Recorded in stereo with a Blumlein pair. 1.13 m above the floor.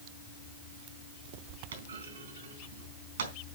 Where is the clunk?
65° right, 3.5 m.